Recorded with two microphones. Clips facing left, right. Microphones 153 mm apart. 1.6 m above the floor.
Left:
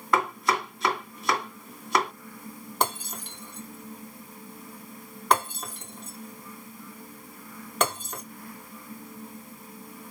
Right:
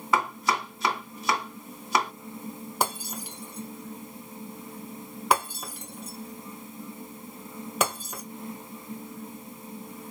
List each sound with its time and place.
0.1 s chopping: 5° right (ahead or behind), 2.5 m
2.8 s breaking glass: 5° right (ahead or behind), 2.5 m